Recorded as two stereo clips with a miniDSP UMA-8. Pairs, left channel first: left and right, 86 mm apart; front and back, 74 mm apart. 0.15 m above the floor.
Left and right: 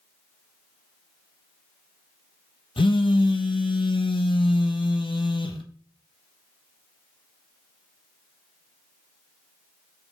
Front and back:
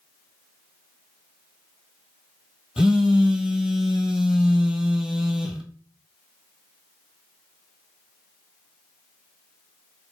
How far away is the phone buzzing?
About 0.7 m.